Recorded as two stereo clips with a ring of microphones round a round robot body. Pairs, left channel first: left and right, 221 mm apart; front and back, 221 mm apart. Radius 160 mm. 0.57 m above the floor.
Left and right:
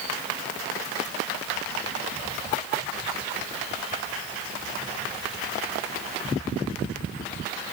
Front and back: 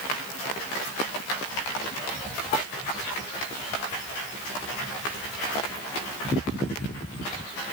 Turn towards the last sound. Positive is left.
No sound to turn to.